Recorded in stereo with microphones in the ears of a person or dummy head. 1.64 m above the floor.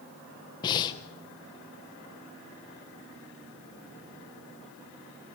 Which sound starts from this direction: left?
Breathing, at 0.6 s.